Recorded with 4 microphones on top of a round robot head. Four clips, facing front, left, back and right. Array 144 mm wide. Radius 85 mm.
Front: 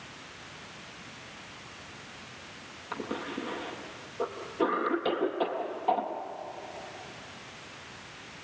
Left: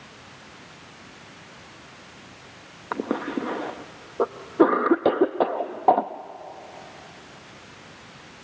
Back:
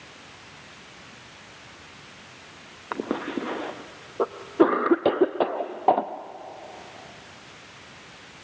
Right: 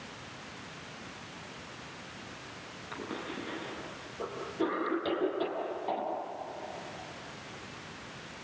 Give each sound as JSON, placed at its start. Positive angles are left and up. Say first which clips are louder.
{"t": 2.9, "sound": "a cough", "louder": "left 13 dB, back 7 dB", "azimuth_deg": 125, "distance_m": 0.7}